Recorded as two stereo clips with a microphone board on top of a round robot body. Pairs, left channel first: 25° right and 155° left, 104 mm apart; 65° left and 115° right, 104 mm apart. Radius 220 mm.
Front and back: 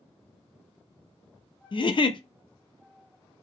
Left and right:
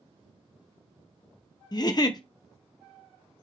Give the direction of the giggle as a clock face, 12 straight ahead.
11 o'clock.